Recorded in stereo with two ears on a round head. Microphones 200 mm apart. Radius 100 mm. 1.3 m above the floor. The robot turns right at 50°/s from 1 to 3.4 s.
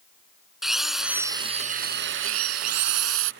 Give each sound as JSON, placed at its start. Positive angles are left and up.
{"t": 0.6, "sound": "a drill", "azimuth_deg": 180}